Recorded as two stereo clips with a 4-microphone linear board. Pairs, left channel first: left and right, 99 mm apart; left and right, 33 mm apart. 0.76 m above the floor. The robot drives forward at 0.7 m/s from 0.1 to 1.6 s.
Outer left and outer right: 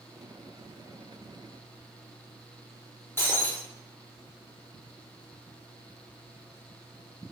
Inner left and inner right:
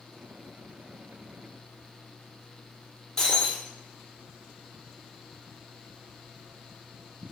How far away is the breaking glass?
About 1.0 m.